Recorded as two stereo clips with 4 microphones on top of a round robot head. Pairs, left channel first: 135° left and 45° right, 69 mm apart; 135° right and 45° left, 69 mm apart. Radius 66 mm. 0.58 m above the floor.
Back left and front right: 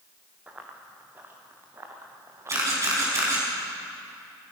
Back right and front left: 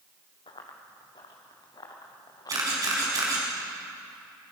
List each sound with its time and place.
0.5 s running footsteps: 115° right, 3.5 m; by 3.3 s 95° right, 5 m
2.5 s a camera shutter: 5° left, 6 m